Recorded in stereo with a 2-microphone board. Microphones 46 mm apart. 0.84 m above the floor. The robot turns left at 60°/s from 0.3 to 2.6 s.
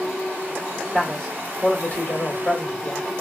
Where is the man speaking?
165° right, 1.5 m; by 3.1 s 95° left, 1.5 m.